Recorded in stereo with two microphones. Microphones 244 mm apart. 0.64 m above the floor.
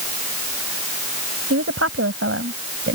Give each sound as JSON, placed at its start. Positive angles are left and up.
{"t": 1.5, "sound": "a woman speaking", "side_deg": -65}